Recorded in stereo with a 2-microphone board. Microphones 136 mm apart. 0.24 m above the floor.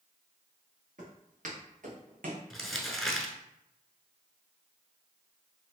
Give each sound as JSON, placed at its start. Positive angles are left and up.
{"t": 1.0, "sound": "footsteps", "side_deg": -70, "distance_m": 2.5}
{"t": 2.5, "sound": "crumpling", "side_deg": 0, "distance_m": 0.9}